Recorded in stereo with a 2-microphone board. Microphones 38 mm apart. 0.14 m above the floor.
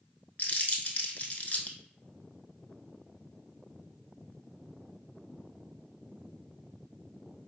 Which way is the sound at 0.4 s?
45° left (ahead or behind).